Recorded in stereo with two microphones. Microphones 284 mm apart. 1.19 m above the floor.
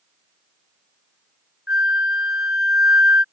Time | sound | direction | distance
1.7 | a flute | 45° left (ahead or behind) | ?